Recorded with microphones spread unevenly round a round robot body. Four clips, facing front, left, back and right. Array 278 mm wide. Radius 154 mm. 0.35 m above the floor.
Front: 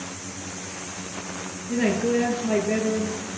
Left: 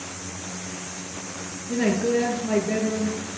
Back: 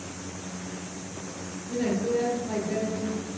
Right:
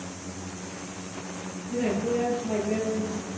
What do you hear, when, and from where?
1.7 s a woman speaking: 55° left, 7.5 m